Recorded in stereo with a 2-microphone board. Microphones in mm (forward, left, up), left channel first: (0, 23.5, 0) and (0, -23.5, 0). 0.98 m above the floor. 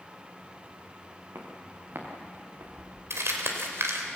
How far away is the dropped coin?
I don't hear a dropped coin.